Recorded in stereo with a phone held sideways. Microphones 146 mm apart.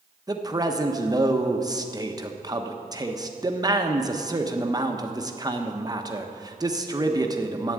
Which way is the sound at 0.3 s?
25° right (ahead or behind).